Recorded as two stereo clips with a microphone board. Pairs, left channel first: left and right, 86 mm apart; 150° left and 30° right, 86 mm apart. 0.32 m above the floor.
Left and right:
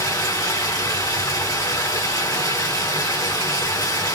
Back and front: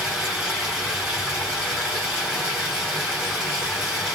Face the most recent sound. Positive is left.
turn(degrees=50)